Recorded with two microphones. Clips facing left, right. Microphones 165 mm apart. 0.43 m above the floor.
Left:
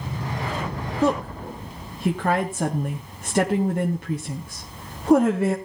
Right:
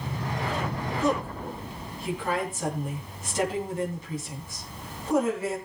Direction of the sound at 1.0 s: 70° left (ahead or behind).